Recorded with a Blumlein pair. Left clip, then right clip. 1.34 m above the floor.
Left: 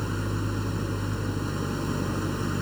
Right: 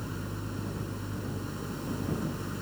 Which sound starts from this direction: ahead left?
An engine running, at 0.0 s.